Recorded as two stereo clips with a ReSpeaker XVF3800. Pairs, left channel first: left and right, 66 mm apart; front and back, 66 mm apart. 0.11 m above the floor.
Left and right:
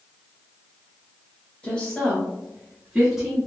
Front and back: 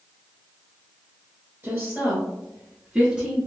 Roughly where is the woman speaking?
Behind left.